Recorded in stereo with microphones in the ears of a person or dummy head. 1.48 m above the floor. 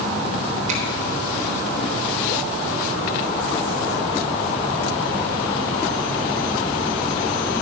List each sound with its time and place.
0.7 s a finger snap: 45° right (ahead or behind), 3.5 m